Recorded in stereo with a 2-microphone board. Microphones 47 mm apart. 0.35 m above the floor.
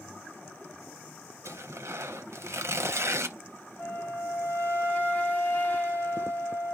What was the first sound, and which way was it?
Tearing paper, 75° right (ahead or behind).